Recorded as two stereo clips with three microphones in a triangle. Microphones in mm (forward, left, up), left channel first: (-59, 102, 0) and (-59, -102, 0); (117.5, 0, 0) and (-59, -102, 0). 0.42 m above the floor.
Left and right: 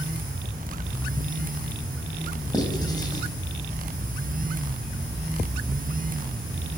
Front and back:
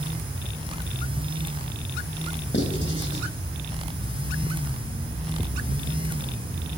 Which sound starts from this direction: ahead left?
Writing, at 2.5 s.